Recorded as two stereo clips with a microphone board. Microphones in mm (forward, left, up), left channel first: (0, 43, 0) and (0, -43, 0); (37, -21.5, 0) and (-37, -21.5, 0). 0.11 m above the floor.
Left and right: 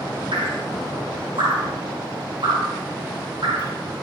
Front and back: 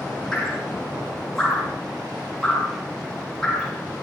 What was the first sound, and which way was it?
Dripping, 85° right.